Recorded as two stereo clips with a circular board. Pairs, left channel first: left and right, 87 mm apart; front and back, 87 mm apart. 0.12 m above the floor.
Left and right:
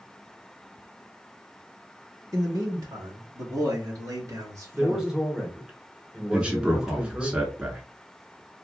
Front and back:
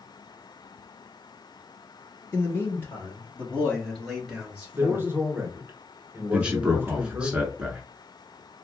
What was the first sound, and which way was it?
A man speaking, 55° right.